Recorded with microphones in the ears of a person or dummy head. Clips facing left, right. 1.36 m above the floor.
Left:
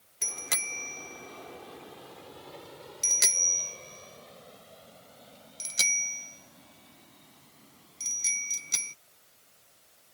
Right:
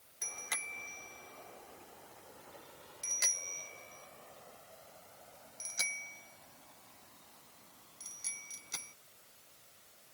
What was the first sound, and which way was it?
A bicycle bell, 50° left (ahead or behind).